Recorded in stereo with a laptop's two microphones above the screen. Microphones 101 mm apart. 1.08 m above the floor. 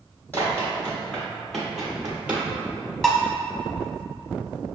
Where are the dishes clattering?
5° left (ahead or behind), 0.7 m.